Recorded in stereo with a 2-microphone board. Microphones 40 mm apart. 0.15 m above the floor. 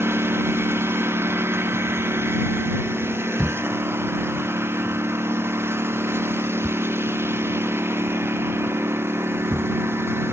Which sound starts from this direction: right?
A lawn mower, at 0.0 s.